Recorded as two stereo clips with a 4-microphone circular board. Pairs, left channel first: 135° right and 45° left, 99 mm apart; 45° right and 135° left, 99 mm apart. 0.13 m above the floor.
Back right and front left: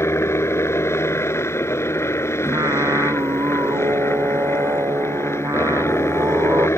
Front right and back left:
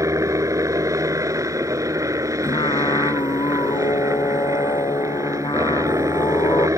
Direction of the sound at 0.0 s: 175° left.